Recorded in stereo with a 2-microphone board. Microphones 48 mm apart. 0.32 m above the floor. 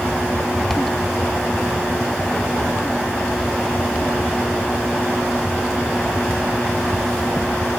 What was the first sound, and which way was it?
Only background noise.